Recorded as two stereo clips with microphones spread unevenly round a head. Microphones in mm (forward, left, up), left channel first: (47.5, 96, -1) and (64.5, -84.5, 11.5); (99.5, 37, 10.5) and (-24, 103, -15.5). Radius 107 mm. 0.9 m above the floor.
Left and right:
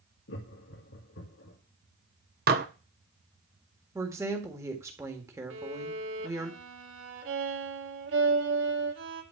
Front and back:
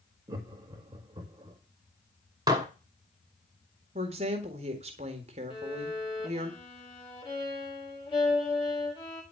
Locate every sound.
0.3 s laughter: 100° left, 1.8 m
2.5 s dishes clattering: 135° right, 0.9 m
4.0 s a woman speaking: 165° right, 1.6 m
5.5 s a violin: 100° right, 2 m